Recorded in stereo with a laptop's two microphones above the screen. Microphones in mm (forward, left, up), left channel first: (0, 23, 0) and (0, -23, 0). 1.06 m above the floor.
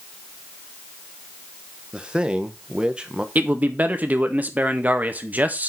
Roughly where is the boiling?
No boiling in this recording.